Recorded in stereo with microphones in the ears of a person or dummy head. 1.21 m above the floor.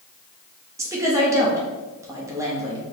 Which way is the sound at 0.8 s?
15° right (ahead or behind).